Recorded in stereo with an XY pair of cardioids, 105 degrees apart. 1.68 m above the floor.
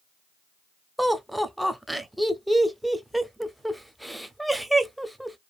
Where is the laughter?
5° right, 0.7 m.